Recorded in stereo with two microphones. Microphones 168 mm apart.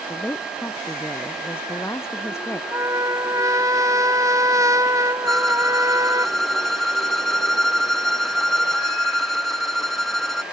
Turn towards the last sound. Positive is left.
turn(degrees=0)  # may be behind; listen again after turning